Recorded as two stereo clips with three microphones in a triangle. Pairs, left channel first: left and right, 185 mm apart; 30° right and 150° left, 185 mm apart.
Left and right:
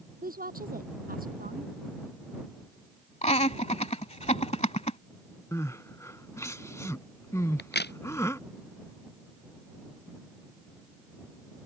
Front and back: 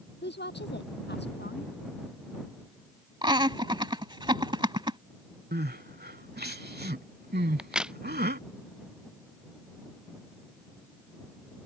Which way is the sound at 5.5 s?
160° left.